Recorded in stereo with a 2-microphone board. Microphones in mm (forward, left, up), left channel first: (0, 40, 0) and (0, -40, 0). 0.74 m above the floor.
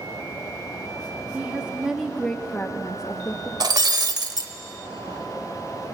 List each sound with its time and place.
1.3 s a woman speaking: 20° right (ahead or behind), 1.8 m; by 3.5 s 50° left (ahead or behind), 1.4 m
3.6 s breaking glass: 55° right (ahead or behind), 1.0 m